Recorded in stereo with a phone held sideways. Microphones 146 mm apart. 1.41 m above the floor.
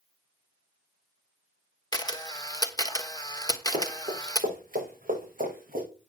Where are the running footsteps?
60° right (ahead or behind), 6.5 m; by 5.8 s 75° right (ahead or behind), 6.5 m.